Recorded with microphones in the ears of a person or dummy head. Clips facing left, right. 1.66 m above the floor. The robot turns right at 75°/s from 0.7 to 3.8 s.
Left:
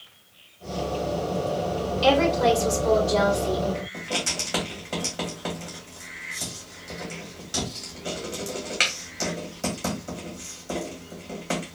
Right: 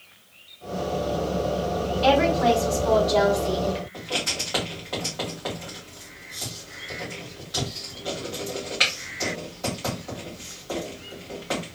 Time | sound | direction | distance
2.0 | a woman speaking | 45° left | 1.9 m
3.9 | writing | 35° left (ahead or behind) | 2 m